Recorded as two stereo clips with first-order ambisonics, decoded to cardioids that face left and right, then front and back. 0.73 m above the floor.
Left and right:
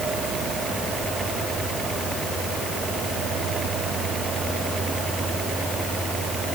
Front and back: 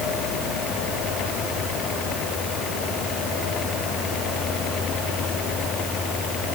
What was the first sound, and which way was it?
Only background noise.